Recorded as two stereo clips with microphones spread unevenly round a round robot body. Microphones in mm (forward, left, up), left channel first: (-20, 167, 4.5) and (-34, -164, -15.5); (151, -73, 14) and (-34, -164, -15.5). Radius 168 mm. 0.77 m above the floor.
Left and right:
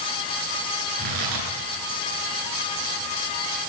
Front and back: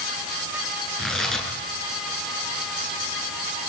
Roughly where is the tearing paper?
Ahead right.